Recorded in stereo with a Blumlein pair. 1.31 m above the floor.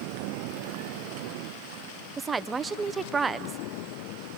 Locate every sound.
2.2 s a woman speaking: 15° right, 0.9 m